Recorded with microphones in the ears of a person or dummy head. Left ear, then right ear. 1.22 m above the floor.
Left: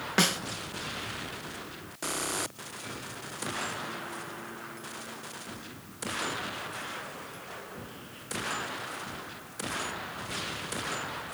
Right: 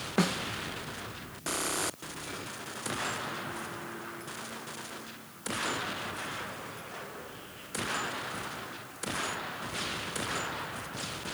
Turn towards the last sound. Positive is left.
turn(degrees=30)  # may be behind; listen again after turning